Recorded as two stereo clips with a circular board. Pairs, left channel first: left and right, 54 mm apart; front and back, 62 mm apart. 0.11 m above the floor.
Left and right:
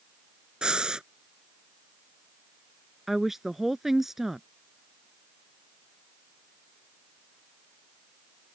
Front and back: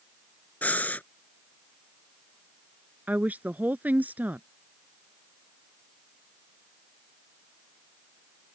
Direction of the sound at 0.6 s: 30° right.